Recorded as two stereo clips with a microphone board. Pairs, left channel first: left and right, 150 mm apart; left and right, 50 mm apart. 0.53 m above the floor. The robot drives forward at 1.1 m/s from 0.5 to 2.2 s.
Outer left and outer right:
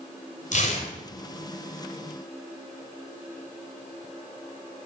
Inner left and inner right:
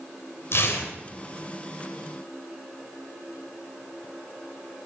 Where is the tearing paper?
60° left (ahead or behind), 2.5 m; by 0.9 s 50° left (ahead or behind), 2.5 m.